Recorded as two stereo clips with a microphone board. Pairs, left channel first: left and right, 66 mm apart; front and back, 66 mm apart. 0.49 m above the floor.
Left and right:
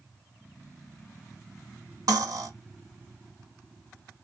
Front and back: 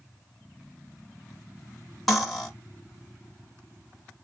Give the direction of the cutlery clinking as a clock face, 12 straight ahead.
3 o'clock.